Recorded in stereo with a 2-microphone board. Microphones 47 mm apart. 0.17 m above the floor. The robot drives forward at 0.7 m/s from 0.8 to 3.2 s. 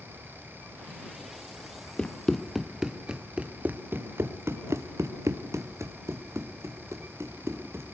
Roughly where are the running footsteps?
Left.